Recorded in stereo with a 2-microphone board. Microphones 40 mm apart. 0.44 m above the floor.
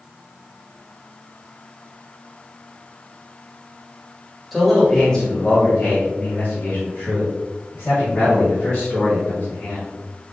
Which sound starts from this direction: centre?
A man speaking, at 4.5 s.